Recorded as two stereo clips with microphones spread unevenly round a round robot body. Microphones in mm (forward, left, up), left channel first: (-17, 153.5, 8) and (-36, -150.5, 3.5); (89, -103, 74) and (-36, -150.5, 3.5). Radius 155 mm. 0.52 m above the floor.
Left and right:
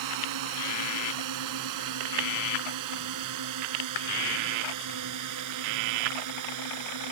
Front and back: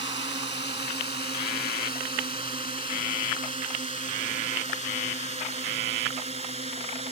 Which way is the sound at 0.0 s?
110° right.